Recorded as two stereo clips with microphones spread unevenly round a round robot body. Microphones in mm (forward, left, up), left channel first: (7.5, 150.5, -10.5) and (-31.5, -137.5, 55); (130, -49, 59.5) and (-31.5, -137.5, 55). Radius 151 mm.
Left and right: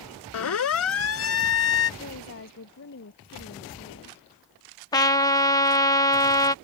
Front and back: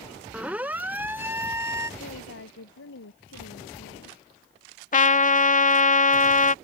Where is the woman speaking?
30° left.